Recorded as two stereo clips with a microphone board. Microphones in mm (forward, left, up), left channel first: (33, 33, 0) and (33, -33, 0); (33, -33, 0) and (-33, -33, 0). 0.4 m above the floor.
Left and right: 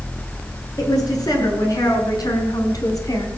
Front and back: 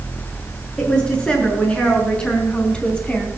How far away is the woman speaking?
About 6 m.